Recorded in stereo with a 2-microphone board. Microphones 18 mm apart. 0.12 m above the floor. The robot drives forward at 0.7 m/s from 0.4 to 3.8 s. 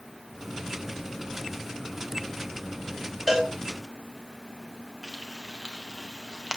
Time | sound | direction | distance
3.3 | a cowbell | 15° right (ahead or behind) | 4 m
5.0 | frying | 25° right (ahead or behind) | 3 m